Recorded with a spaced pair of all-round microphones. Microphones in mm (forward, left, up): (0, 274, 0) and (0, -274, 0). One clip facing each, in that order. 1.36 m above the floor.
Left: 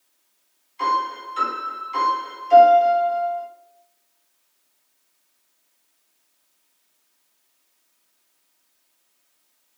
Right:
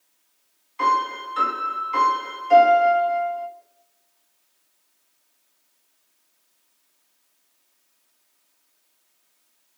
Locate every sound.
0.8 s a piano: 80° right, 2.5 m